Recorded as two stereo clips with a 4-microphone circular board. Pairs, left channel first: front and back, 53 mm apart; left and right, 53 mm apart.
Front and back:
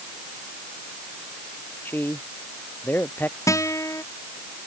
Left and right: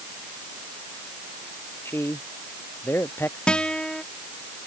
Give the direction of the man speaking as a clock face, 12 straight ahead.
10 o'clock.